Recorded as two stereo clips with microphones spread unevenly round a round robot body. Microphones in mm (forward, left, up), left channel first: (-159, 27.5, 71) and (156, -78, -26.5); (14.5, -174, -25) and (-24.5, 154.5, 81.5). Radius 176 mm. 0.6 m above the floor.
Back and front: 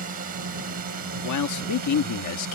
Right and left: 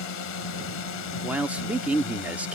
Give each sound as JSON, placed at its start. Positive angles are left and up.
{"t": 0.0, "sound": "a drone", "azimuth_deg": -75}
{"t": 1.2, "sound": "a man speaking", "azimuth_deg": -160}